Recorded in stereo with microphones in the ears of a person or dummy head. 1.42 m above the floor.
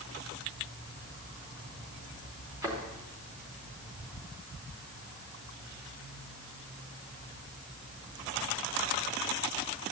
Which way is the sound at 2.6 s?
15° right (ahead or behind).